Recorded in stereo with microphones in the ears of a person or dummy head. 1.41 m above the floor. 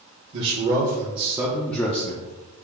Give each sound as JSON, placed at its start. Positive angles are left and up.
{"t": 0.3, "sound": "a man speaking", "side_deg": -45, "distance_m": 1.1}